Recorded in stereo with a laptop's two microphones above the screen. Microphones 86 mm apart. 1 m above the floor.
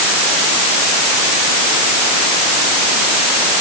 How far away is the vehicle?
No vehicle in this recording.